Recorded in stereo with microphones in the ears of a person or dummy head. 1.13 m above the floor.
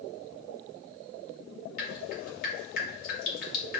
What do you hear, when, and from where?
1.8 s dripping: 60° left (ahead or behind), 1.4 m